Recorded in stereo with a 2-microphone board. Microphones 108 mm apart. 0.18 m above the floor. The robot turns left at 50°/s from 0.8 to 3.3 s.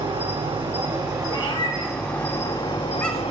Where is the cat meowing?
45° left (ahead or behind), 0.6 m; by 3.3 s centre (ahead or behind), 0.6 m.